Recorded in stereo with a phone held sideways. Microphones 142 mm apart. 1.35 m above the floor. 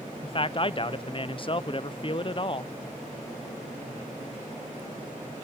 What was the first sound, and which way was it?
A man speaking, 40° left (ahead or behind).